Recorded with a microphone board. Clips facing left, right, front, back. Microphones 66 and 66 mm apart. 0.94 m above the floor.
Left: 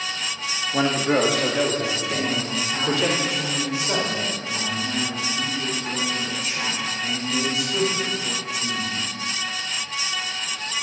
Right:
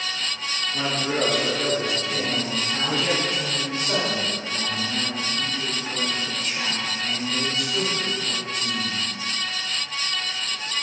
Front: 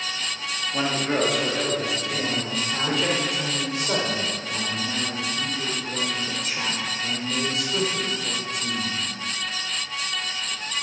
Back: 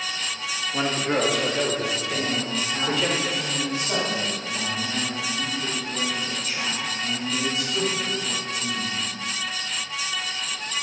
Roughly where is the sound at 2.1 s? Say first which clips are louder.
Left 1 dB, back 1 dB; ahead.